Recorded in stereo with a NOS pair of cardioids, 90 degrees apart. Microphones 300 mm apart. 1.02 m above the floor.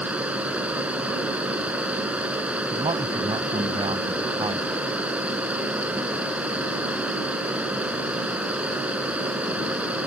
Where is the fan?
5° right.